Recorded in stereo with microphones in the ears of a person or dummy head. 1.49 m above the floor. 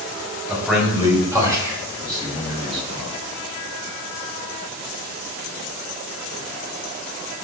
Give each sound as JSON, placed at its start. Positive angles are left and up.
{"t": 0.5, "sound": "a man speaking", "side_deg": -10, "distance_m": 2.5}